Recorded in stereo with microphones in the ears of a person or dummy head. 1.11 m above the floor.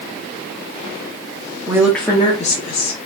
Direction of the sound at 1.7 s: 15° right (ahead or behind).